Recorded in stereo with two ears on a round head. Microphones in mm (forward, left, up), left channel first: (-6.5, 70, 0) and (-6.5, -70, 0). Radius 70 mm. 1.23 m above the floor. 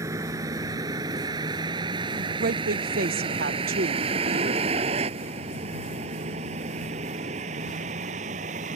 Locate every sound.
0.0 s a vehicle: 20° right (ahead or behind); by 8.8 s 45° right (ahead or behind)
2.4 s a woman speaking: 65° right (ahead or behind)